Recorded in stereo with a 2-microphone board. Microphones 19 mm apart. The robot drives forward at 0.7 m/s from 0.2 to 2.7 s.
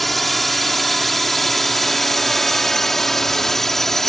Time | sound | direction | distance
0.0 | a drone | 10° left (ahead or behind) | ?